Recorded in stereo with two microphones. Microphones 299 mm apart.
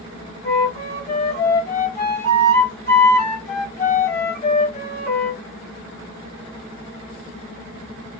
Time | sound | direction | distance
0.4 | a flute | 30° left (ahead or behind) | 1.5 m